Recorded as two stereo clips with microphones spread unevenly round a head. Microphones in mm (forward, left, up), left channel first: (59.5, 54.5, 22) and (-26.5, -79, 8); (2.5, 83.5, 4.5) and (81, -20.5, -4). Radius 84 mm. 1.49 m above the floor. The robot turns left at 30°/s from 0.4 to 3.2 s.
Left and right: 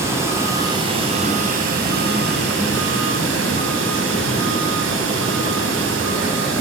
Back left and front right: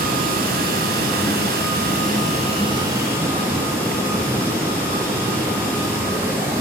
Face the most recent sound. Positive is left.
turn(degrees=-135)